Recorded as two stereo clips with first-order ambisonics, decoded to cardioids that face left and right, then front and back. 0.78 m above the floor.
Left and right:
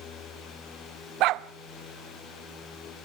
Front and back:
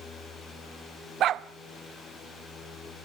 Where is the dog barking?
125° right, 0.7 m.